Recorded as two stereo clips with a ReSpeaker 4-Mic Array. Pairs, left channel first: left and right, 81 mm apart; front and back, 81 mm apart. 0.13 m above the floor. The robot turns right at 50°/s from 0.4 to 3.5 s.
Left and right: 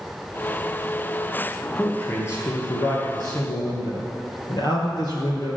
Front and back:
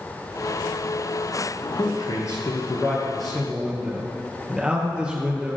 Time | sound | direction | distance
1.8 | a man speaking | 15° left | 2.5 m